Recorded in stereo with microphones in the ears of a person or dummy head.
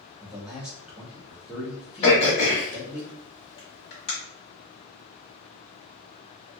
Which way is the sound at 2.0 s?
30° left (ahead or behind).